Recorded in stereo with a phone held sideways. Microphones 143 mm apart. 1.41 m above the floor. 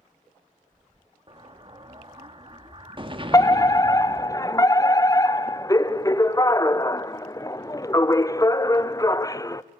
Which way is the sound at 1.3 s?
35° right (ahead or behind).